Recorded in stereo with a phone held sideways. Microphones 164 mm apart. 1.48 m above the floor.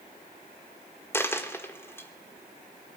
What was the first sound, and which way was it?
A dropped coin, 15° left (ahead or behind).